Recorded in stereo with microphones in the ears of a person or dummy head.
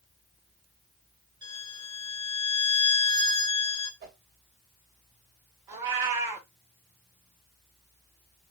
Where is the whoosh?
55° right (ahead or behind), 1.7 m.